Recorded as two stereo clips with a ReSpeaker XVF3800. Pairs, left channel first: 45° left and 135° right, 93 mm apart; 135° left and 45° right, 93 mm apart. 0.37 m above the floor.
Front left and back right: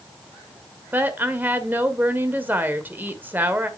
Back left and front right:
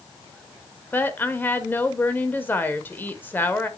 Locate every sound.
0.9 s a woman speaking: straight behind, 1.3 m